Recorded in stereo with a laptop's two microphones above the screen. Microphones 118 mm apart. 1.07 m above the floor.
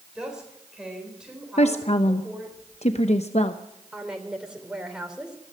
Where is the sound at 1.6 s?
70° left (ahead or behind), 0.9 m.